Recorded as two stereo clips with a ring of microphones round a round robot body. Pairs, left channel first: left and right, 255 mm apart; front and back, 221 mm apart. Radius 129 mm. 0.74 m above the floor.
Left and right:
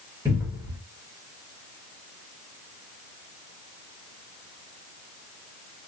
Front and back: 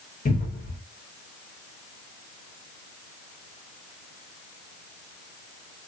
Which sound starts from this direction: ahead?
A cupboard door, at 0.2 s.